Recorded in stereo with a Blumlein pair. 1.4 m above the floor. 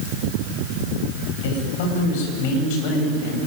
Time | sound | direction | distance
1.4 | a man speaking | 50° left | 9 m